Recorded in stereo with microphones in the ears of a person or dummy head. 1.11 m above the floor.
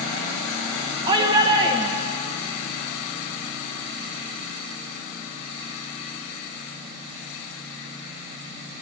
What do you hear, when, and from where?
1.1 s a shout: 25° right (ahead or behind), 1.1 m